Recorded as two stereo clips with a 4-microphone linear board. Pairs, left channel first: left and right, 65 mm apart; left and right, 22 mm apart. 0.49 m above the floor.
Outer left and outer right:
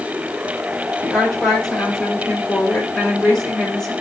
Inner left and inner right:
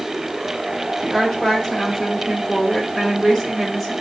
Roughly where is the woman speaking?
Centre.